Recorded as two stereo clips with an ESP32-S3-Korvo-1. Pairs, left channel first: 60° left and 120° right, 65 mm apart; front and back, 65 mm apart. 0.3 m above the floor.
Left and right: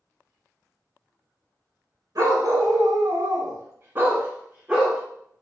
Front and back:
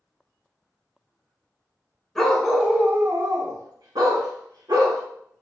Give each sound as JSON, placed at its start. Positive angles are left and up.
{"t": 2.1, "sound": "a dog barking", "azimuth_deg": -85, "distance_m": 0.7}